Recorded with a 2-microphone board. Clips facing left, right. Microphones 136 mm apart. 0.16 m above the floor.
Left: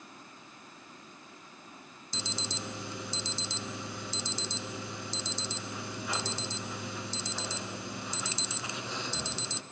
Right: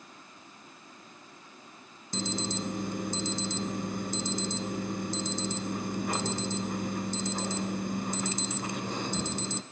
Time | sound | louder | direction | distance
2.1 | an alarm | right 7 dB | 50° right (ahead or behind) | 1.2 m